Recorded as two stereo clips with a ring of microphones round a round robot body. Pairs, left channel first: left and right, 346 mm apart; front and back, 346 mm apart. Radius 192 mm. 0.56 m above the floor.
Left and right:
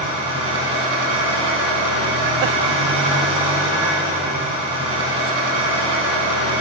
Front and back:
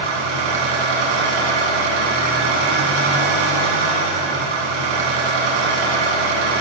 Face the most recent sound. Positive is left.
turn(degrees=-165)